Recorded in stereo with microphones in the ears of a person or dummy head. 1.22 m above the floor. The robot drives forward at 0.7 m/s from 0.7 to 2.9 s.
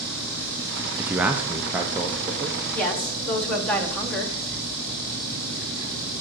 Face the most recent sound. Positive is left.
turn(degrees=10)  # may be behind; listen again after turning